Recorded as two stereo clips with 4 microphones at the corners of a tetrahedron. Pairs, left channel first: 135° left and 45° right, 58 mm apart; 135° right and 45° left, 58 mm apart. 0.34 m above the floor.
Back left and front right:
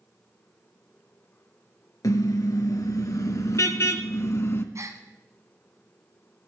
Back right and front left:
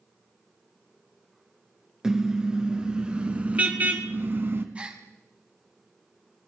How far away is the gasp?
About 1.7 m.